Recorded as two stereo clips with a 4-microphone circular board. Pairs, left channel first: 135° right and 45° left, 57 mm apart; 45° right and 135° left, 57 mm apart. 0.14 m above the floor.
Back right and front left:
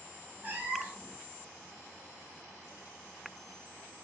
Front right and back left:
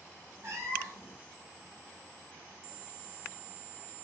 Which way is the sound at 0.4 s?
100° left.